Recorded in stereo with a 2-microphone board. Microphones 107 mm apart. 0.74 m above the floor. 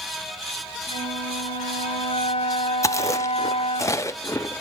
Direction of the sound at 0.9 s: 65° left (ahead or behind).